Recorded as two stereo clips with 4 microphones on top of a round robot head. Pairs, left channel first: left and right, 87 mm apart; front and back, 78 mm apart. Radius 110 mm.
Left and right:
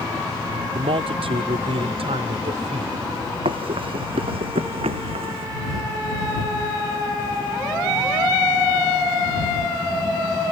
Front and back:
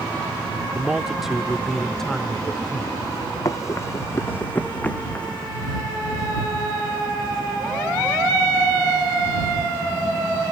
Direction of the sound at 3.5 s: 55° right.